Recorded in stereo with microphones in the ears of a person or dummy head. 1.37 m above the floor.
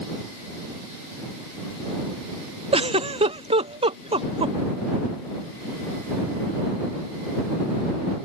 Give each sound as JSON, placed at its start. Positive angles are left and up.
{"t": 2.7, "sound": "a giggle", "side_deg": -20}